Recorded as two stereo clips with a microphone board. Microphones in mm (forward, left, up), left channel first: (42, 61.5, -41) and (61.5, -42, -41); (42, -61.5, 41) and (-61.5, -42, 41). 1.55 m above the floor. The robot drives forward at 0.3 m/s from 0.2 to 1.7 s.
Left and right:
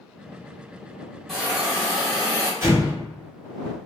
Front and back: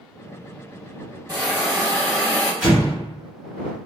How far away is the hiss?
About 1.5 m.